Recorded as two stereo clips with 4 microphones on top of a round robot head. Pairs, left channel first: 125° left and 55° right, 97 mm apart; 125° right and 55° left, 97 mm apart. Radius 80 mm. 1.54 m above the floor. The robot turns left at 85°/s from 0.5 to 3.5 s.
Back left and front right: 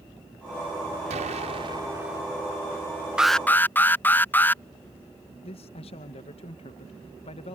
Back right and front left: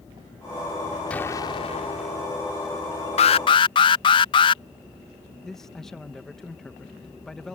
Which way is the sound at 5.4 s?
150° left.